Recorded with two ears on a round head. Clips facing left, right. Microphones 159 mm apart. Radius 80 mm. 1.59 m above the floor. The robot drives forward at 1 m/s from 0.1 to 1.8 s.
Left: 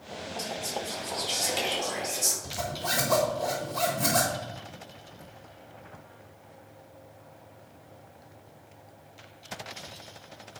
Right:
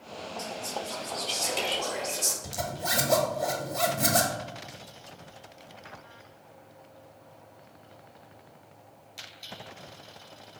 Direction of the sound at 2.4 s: 10° right (ahead or behind).